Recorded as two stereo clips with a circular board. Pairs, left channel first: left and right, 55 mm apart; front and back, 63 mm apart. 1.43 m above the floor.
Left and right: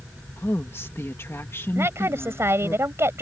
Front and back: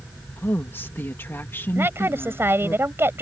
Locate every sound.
0.4 s a woman speaking: 55° left
1.8 s a woman speaking: 125° right